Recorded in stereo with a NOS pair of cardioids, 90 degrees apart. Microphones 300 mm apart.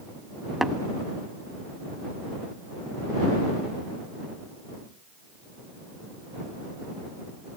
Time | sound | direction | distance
0.6 | tapping | straight ahead | ?